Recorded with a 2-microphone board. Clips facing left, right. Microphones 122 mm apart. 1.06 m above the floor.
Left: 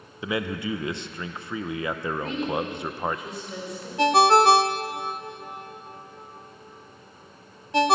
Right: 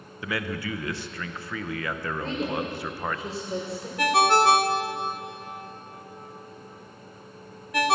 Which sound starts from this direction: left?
A ringtone, at 4.0 s.